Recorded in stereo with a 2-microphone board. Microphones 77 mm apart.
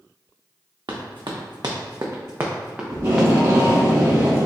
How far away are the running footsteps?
About 1.0 m.